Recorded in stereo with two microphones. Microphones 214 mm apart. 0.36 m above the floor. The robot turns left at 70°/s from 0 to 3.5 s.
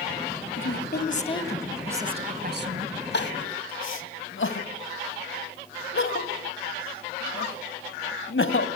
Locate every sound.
0.6 s a woman speaking: 80° left, 2 m; by 3.0 s 85° right, 2 m
3.1 s crying: 55° left (ahead or behind), 1.9 m; by 8.7 s 65° left (ahead or behind), 1.9 m